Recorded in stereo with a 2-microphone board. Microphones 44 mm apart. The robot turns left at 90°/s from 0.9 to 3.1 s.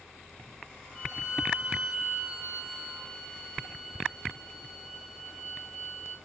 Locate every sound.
0.9 s a violin: 35° left, 3 m; by 6.2 s 160° right, 3 m